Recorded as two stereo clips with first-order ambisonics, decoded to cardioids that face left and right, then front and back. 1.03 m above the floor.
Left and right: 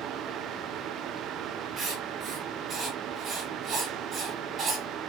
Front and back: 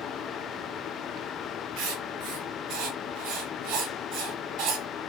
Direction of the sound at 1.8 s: 155° right.